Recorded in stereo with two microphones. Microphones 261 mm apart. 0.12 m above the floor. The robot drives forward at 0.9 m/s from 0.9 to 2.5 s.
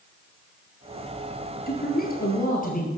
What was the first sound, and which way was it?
A man speaking, 40° left (ahead or behind).